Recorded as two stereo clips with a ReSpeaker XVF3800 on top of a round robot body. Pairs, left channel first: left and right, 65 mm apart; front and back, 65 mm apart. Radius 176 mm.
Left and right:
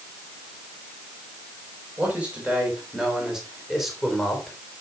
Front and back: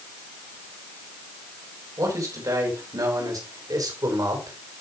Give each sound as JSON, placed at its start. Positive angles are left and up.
{"t": 2.0, "sound": "a man speaking", "azimuth_deg": -155, "distance_m": 4.0}